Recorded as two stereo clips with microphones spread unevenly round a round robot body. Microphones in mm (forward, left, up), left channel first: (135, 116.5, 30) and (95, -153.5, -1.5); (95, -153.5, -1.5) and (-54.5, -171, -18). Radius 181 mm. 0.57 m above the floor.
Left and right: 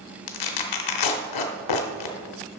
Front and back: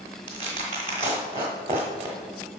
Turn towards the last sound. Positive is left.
turn(degrees=110)